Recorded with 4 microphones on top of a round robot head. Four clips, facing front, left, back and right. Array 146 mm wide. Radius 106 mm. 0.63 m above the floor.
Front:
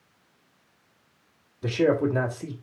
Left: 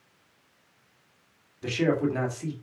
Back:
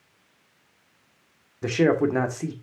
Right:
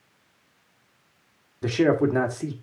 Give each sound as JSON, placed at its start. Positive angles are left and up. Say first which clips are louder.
{"t": 1.6, "sound": "a man speaking", "louder": "right 5 dB, back 2 dB", "azimuth_deg": -140, "distance_m": 2.5}